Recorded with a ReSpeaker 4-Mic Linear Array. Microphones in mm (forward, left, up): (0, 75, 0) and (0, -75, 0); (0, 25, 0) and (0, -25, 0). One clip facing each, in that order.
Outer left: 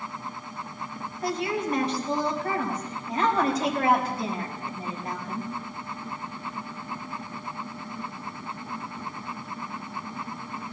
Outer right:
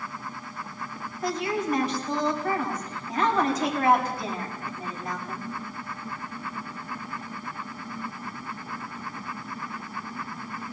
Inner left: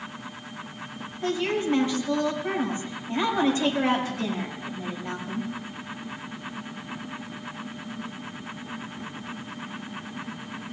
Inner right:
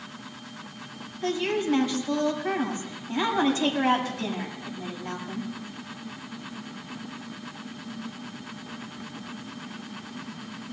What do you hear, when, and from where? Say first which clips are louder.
1.2 s a woman speaking: even, even; 35° left (ahead or behind), 6.5 m